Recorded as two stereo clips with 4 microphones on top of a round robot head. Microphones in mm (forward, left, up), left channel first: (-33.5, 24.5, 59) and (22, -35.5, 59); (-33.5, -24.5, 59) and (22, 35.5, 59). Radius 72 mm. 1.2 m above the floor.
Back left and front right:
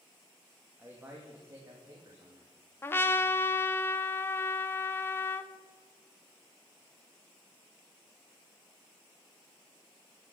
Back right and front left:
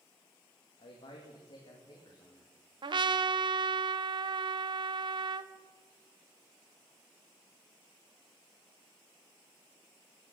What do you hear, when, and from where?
0.8 s a man speaking: 120° right, 2.5 m; by 2.5 s 90° right, 3 m
2.8 s a trumpet: 70° left, 0.7 m